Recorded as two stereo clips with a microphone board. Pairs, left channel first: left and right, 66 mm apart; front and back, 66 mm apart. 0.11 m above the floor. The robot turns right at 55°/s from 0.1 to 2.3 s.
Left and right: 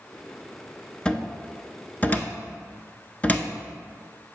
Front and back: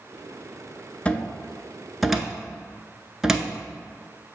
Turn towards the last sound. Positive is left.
turn(degrees=105)